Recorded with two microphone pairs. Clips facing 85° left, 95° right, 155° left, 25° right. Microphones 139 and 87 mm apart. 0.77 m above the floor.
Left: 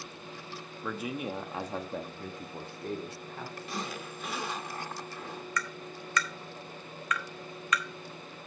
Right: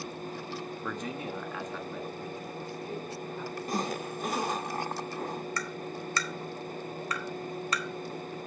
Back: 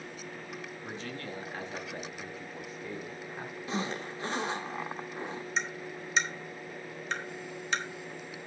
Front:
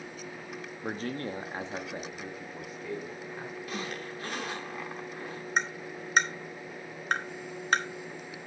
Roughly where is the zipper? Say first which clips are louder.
Right 7 dB, back 5 dB; behind right.